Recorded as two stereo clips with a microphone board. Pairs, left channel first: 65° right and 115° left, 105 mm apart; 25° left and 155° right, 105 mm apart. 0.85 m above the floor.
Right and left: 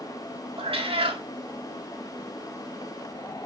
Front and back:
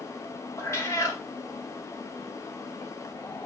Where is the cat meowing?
85° left, 1.1 m.